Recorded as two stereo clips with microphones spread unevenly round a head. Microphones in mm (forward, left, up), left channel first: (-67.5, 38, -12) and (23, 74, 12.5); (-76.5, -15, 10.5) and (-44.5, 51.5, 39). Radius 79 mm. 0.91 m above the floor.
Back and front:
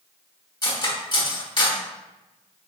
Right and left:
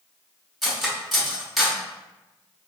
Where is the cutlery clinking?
155° left, 1.2 m.